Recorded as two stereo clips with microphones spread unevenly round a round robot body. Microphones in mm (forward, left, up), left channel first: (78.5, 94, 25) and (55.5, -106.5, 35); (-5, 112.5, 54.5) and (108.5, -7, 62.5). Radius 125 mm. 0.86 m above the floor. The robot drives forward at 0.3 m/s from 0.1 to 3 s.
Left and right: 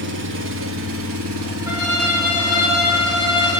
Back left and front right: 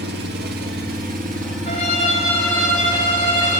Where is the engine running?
70° right, 1.0 m; by 3.6 s 120° right, 1.1 m.